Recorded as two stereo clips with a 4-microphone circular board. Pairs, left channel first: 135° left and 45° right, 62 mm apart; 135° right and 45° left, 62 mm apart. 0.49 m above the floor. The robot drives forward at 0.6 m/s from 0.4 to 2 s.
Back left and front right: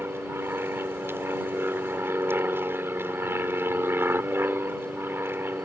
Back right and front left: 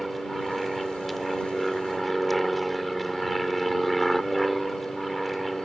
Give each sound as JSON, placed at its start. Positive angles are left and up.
{"t": 0.0, "sound": "an aircraft", "azimuth_deg": -45}